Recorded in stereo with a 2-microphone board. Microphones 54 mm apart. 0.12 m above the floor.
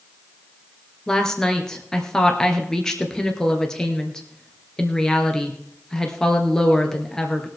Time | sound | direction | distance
1.1 | a woman speaking | 10° left (ahead or behind) | 2.0 m